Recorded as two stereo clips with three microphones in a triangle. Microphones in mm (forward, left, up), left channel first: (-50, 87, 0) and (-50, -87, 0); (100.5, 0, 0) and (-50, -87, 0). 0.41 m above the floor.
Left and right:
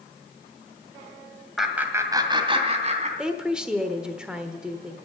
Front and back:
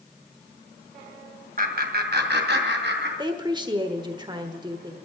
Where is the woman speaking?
170° right, 1.2 m.